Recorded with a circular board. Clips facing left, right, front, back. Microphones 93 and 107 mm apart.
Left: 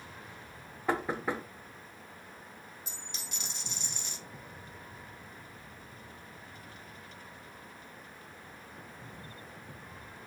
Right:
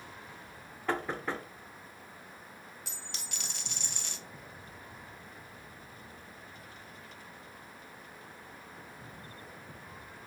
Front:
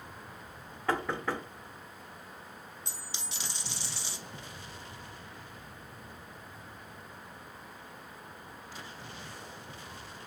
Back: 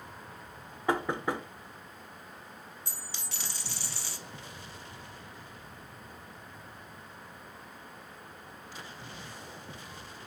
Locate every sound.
0.9 s knocking: 140° left, 0.5 m
2.9 s a dropped coin: 70° right, 0.8 m